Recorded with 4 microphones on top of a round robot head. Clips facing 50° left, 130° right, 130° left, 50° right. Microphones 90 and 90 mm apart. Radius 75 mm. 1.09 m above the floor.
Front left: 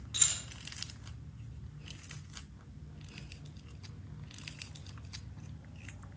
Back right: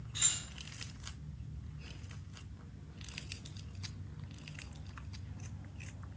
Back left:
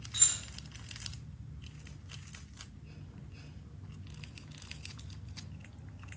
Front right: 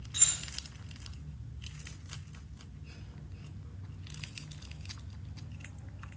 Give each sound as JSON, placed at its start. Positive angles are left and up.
{"t": 0.1, "sound": "keys jangling", "azimuth_deg": 50, "distance_m": 0.5}